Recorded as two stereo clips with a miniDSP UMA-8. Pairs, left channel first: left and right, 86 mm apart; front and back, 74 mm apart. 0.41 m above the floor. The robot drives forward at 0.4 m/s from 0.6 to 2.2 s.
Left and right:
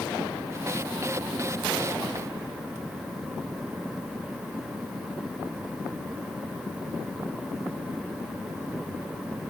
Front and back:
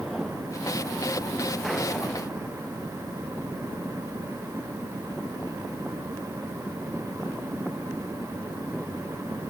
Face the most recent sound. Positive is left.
No sound to turn to.